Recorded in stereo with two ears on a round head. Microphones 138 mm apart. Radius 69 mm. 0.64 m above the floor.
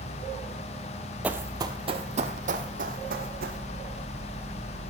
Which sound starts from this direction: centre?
Running footsteps, at 1.2 s.